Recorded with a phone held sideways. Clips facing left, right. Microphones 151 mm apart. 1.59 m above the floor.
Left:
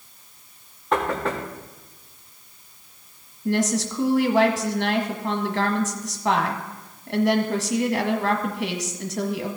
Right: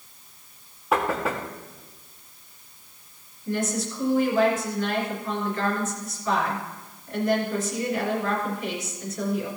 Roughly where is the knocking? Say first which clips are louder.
Left 1 dB; centre.